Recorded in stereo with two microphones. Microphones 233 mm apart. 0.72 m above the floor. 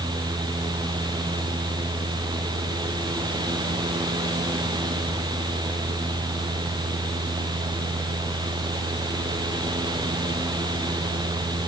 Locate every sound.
Only background noise.